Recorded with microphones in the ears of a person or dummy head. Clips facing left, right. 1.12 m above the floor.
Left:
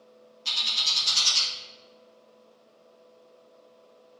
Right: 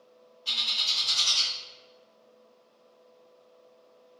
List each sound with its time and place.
0.5 s a bird: 75° left (ahead or behind), 1.1 m